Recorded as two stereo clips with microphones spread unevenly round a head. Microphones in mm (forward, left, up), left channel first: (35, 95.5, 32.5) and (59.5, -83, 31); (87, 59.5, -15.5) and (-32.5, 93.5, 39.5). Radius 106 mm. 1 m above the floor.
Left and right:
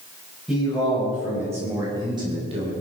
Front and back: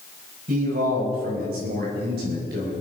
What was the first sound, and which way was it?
A man speaking, 170° right.